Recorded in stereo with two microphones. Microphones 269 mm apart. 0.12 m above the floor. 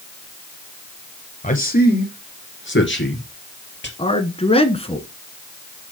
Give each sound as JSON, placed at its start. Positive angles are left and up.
{"t": 1.4, "sound": "a man speaking", "side_deg": 30, "distance_m": 2.5}
{"t": 4.0, "sound": "a man speaking", "side_deg": 20, "distance_m": 1.1}